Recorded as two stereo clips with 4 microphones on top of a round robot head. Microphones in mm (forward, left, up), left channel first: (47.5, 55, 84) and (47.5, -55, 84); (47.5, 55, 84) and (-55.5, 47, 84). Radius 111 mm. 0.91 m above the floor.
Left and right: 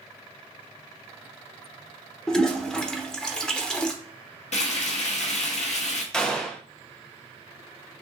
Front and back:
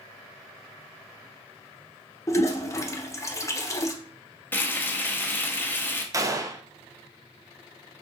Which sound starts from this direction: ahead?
A toilet flushing, at 2.3 s.